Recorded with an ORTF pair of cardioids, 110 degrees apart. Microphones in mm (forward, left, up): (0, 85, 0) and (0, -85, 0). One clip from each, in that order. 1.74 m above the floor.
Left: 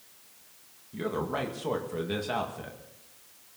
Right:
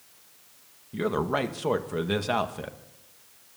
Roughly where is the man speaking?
Ahead right.